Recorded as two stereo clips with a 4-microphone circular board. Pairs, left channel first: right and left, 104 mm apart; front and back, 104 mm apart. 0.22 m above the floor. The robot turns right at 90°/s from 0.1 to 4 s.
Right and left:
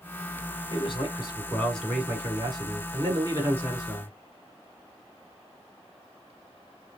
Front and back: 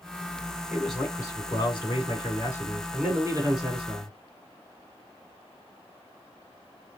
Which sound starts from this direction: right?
A man speaking, at 0.7 s.